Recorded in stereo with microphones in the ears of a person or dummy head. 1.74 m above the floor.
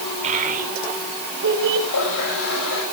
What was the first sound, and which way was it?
A child speaking, 40° right (ahead or behind).